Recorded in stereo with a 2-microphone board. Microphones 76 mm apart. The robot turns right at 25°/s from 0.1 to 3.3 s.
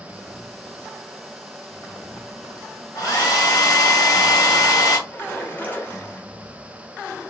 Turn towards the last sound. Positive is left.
turn(degrees=25)  # may be behind; listen again after turning